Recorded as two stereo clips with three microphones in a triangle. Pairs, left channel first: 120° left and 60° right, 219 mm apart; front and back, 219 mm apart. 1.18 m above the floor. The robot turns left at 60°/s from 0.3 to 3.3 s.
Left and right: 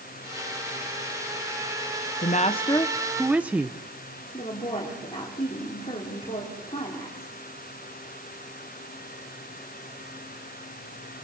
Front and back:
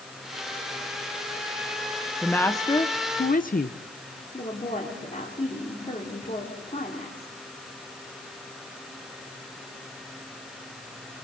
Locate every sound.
2.2 s a woman speaking: 85° left, 0.7 m; by 3.8 s 20° left, 0.7 m
4.3 s a woman speaking: 55° left, 4 m